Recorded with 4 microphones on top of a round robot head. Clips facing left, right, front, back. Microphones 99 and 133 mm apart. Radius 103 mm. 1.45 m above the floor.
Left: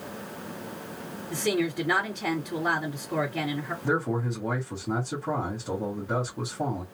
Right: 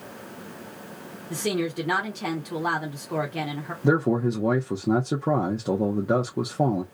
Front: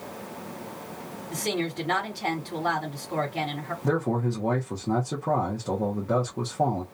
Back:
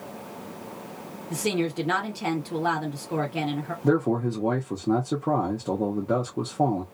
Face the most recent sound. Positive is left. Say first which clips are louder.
# right 7 dB, back 3 dB
turn(degrees=-110)